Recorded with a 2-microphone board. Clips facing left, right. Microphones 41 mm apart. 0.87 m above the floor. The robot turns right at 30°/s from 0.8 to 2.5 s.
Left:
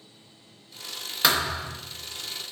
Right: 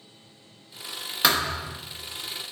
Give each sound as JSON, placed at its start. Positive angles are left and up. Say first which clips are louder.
{"t": 1.2, "sound": "a thud", "louder": "even", "side_deg": -5, "distance_m": 0.7}